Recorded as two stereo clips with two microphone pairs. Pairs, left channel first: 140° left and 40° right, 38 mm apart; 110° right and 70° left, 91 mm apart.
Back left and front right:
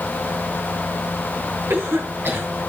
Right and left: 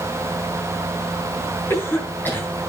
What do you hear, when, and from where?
1.7 s a cough: 40° right, 6 m